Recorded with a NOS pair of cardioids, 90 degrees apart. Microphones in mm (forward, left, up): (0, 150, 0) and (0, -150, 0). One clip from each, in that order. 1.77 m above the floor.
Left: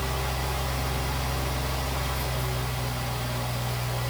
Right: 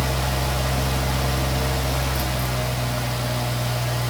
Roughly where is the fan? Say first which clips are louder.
Right 5 dB; ahead right.